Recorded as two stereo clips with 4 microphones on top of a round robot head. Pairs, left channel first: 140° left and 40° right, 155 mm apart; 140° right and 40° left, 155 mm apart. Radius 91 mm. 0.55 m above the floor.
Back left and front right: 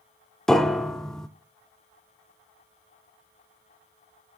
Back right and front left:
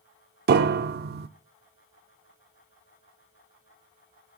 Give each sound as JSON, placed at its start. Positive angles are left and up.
{"t": 0.5, "sound": "a piano", "azimuth_deg": 55, "distance_m": 0.6}